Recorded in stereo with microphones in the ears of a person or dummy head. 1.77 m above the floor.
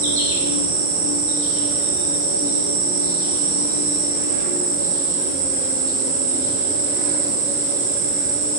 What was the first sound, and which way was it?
An insect, 65° right (ahead or behind).